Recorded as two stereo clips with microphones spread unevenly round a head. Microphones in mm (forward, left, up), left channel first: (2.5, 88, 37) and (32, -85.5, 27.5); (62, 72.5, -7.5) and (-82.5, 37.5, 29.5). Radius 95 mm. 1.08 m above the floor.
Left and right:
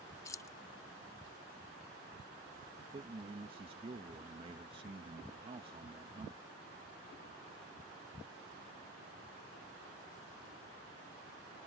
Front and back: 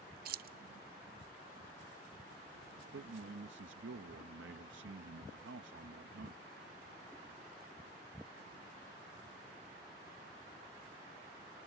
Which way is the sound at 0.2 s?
175° left.